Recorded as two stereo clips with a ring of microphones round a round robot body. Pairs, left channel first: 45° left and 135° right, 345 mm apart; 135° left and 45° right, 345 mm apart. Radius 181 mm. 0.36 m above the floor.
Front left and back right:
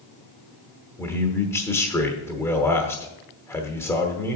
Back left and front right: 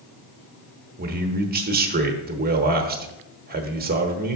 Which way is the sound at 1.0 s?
25° right.